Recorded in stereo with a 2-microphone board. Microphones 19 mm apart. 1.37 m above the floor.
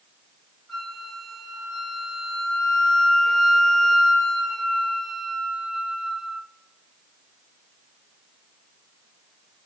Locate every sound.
0.7 s a flute: 10° left (ahead or behind), 4 m